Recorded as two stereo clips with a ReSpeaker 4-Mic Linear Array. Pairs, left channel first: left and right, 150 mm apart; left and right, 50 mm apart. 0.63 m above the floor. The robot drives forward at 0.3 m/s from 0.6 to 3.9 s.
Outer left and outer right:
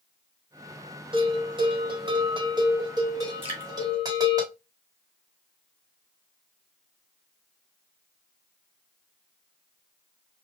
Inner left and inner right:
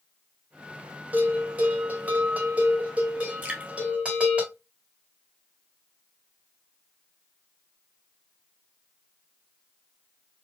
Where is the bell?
30° right (ahead or behind), 1.4 m; by 4.4 s 25° right (ahead or behind), 1.8 m.